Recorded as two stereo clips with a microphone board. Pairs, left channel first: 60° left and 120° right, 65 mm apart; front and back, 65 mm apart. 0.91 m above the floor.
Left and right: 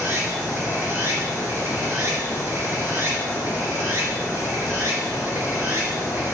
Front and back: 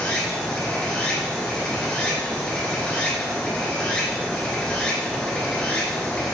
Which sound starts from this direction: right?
Running water, at 0.0 s.